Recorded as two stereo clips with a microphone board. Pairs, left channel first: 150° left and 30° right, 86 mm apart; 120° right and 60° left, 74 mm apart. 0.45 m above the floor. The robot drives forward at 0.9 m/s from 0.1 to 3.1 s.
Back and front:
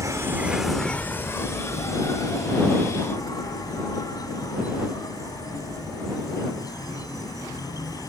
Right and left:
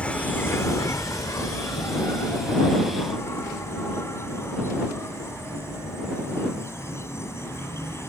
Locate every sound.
0.0 s an insect: 55° right; by 8.1 s 170° right